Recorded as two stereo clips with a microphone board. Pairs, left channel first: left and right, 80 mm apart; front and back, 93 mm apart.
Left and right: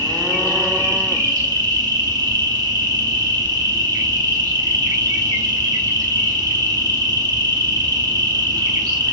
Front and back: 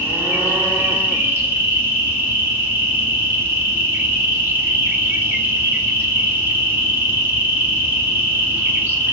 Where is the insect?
115° right, 0.7 m.